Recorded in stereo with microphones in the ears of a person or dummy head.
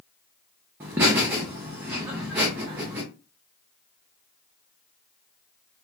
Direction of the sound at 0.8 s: 10° right (ahead or behind).